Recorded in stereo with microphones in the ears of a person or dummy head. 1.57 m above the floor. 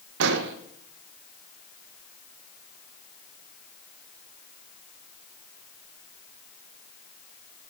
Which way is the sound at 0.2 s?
65° right (ahead or behind).